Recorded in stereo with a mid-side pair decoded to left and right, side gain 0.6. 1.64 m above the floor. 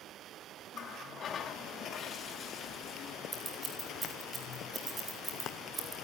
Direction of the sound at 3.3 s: 25° right.